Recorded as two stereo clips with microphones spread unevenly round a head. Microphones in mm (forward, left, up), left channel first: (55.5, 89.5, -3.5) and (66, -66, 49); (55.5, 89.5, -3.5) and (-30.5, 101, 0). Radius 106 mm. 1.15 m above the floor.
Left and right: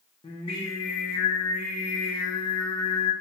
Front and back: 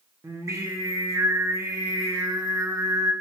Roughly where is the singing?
Behind left.